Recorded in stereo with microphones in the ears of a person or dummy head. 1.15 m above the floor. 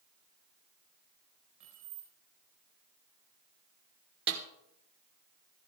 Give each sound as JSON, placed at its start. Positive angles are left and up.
{"t": 1.6, "sound": "keys jangling", "side_deg": -40, "distance_m": 4.5}
{"t": 4.3, "sound": "a snare drum", "side_deg": -55, "distance_m": 1.1}